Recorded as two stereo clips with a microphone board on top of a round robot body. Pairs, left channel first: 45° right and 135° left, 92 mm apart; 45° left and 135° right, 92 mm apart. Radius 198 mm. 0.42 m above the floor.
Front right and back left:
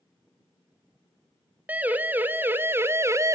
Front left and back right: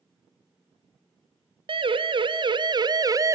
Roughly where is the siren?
Behind right.